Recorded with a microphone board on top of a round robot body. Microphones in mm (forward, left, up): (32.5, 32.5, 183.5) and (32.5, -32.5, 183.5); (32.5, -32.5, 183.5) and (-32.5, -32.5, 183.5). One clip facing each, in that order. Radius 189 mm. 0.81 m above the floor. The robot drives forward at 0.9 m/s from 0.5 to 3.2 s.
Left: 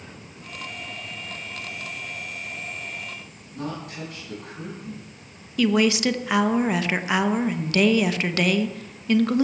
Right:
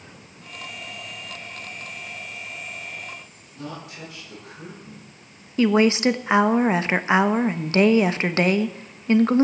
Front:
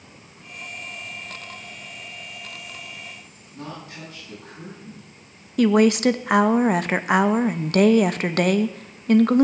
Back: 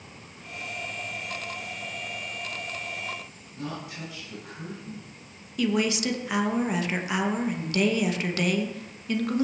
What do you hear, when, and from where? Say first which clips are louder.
3.5 s a woman speaking: left 4 dB, even; 50° left, 10 m
5.6 s a woman speaking: right 2 dB, front 9 dB; 30° right, 1.2 m